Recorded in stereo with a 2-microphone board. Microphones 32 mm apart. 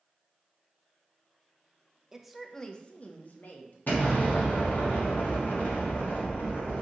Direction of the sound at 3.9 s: 70° left (ahead or behind).